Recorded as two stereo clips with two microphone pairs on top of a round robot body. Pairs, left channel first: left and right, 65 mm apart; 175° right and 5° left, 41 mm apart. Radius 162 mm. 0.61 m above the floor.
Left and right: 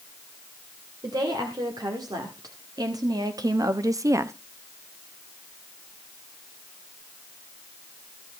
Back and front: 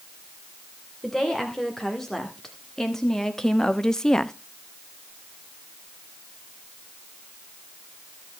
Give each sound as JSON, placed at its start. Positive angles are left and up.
{"t": 1.0, "sound": "a woman speaking", "azimuth_deg": -90, "distance_m": 2.5}